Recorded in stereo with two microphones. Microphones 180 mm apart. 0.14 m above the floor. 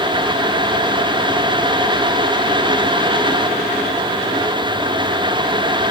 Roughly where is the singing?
I don't hear singing.